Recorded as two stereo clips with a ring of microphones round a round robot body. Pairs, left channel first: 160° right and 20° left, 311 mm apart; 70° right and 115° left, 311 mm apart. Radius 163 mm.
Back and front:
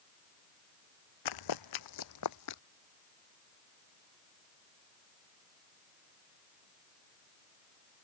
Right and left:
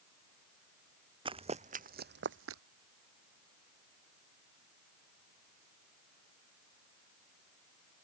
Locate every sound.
1.2 s running footsteps: 175° right; by 2.6 s 160° left